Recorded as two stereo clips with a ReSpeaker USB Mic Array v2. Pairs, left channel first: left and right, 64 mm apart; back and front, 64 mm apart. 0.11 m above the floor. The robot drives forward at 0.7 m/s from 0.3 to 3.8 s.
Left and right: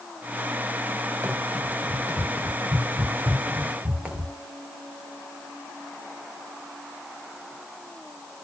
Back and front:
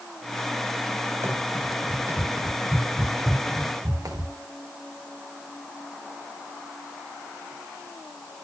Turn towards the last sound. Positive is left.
turn(degrees=-20)